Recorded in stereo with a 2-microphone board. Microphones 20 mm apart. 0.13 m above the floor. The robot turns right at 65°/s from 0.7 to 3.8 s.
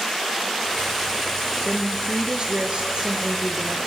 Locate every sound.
1.6 s a woman speaking: 155° right, 2 m; by 3.8 s 20° right, 2 m